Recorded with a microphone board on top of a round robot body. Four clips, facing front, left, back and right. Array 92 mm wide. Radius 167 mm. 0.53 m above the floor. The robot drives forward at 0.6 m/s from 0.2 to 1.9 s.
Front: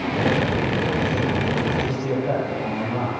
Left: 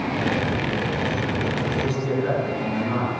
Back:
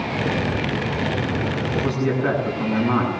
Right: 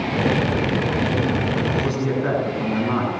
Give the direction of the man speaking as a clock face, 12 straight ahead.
5 o'clock.